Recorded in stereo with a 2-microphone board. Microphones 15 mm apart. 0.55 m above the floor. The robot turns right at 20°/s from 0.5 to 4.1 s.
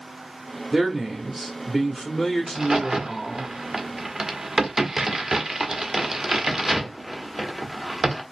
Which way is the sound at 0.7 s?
15° right.